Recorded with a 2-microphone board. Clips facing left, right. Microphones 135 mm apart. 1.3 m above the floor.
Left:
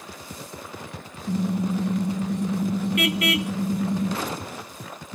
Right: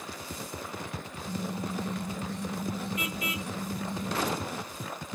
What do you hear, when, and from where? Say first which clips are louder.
1.3 s a car horn: left 10 dB; 70° left (ahead or behind); by 4.2 s 85° left